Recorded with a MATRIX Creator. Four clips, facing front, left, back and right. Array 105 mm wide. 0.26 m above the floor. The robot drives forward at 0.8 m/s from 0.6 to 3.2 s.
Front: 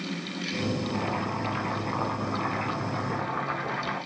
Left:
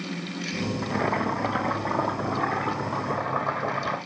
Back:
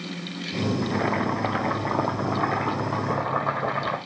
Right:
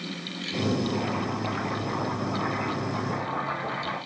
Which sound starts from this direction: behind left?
Boiling, at 0.8 s.